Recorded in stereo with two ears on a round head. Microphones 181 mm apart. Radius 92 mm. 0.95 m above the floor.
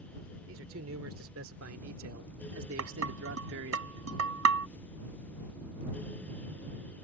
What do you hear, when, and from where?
0.5 s a man speaking: 70° right (ahead or behind); by 3.8 s 65° right (ahead or behind)
2.8 s dishes clattering: 85° right